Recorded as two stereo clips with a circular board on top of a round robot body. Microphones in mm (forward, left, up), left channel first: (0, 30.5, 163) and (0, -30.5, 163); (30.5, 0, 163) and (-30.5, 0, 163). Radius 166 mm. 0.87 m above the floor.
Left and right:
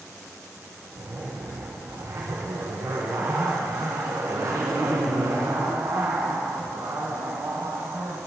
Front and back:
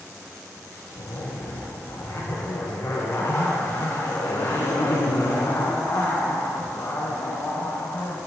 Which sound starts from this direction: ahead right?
A zipper, at 0.9 s.